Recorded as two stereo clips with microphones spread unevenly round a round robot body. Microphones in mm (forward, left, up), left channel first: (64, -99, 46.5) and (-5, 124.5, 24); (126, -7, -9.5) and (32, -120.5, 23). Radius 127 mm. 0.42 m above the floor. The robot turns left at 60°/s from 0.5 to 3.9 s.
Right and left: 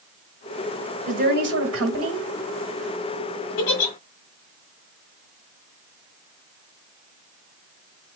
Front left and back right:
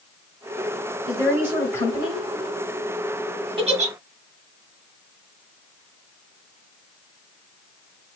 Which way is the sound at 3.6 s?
70° right.